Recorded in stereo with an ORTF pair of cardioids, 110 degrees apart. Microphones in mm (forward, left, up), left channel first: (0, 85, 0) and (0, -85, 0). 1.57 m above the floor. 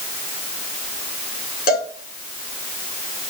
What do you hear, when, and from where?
1.7 s a cowbell: 55° left, 6 m